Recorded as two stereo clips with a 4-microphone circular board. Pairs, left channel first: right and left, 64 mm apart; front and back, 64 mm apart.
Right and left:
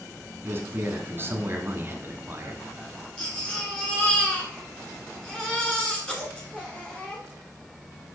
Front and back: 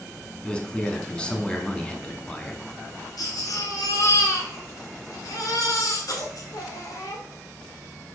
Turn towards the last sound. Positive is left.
turn(degrees=-20)